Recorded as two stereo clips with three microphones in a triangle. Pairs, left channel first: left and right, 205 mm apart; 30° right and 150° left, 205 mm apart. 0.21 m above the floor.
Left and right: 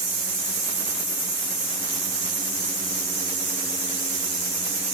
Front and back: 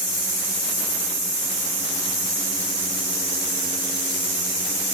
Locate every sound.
Only background noise.